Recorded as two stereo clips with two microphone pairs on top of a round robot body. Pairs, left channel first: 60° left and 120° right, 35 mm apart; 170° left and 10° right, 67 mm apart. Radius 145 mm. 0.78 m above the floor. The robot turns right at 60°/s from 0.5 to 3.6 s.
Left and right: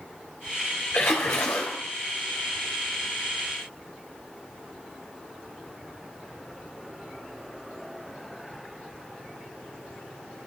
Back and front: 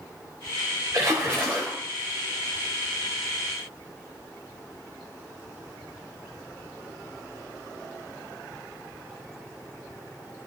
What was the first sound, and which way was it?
A splash, 40° left.